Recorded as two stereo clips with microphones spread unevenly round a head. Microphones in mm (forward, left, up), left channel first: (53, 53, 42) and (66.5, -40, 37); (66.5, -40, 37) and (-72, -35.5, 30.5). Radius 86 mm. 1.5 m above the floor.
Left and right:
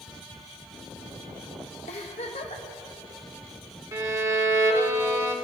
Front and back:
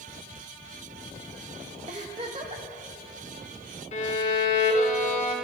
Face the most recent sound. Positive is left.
turn(degrees=-25)